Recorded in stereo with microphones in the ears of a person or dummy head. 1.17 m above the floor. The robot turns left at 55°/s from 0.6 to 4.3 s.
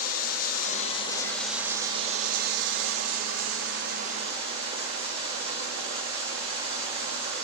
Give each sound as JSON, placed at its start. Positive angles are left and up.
{"t": 0.0, "sound": "running water", "azimuth_deg": 45, "distance_m": 1.0}